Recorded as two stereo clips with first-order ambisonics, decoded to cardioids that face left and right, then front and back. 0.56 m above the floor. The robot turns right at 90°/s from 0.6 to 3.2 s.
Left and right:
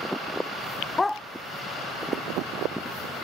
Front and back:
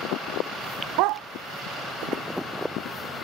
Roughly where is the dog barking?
Behind.